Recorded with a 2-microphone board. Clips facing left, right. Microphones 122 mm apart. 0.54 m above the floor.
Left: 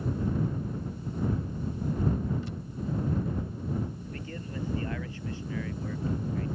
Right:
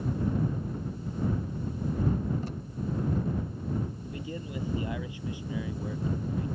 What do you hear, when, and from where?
2.4 s tape being pulled: 45° right (ahead or behind)
4.0 s a man speaking: 15° right (ahead or behind)